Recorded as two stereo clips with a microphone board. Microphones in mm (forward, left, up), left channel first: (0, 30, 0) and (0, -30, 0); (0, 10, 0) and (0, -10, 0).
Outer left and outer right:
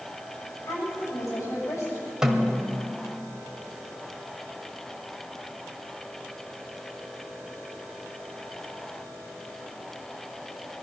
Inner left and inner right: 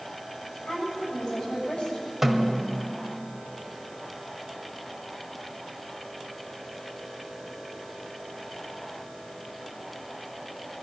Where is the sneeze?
I don't hear a sneeze.